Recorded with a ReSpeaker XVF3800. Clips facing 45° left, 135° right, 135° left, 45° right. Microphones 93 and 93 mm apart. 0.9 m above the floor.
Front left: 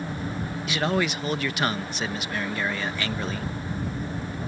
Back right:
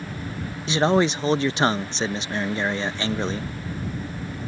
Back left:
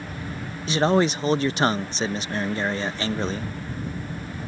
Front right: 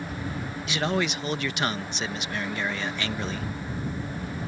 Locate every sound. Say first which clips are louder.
0.7 s a man speaking: back right 6 dB, back left 7 dB; 175° left